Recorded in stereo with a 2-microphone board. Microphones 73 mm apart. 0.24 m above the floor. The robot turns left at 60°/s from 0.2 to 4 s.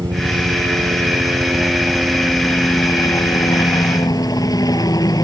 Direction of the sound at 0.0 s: 70° right.